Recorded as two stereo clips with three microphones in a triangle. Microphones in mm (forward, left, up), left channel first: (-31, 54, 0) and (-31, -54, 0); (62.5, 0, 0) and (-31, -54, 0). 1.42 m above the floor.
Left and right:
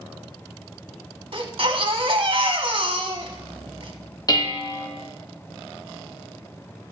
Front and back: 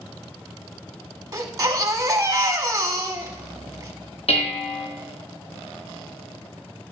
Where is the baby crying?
105° right, 1.2 m.